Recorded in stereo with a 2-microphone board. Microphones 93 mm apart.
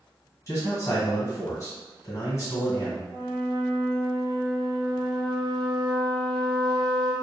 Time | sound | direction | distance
0.5 | a man speaking | 35° left (ahead or behind) | 1.4 m
3.1 | a flute | 55° right (ahead or behind) | 1.7 m